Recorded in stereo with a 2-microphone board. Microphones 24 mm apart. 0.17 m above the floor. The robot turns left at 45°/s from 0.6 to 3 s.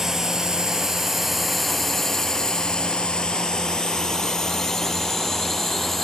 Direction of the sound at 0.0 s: 15° right (ahead or behind).